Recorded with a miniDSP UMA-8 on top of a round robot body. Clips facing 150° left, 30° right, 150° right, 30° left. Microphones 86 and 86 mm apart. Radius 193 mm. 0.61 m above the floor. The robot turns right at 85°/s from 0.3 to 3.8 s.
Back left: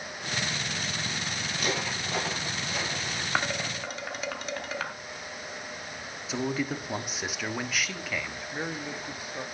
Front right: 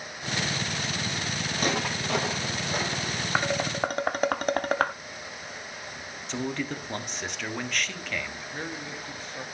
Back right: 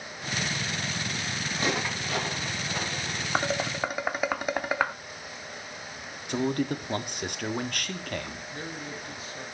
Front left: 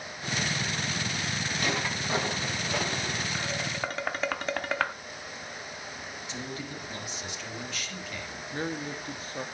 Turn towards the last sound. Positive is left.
turn(degrees=75)